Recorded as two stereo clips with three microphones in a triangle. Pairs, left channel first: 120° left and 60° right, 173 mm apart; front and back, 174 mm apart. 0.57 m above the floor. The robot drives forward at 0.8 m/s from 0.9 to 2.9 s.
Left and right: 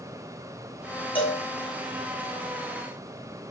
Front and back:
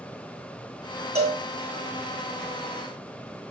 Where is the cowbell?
160° left, 1.2 m; by 1.4 s 165° left, 1.3 m.